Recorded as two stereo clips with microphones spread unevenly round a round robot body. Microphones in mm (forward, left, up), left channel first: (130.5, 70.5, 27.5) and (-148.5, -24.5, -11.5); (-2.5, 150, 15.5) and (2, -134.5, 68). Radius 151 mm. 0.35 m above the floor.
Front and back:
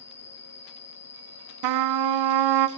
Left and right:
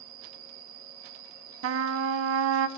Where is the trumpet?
135° right, 0.5 m.